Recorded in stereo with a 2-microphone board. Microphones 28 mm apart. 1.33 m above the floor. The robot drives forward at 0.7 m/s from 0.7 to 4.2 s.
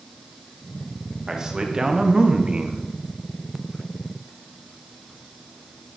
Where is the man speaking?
20° right (ahead or behind), 1.8 m; by 2.8 s 40° right (ahead or behind), 0.9 m.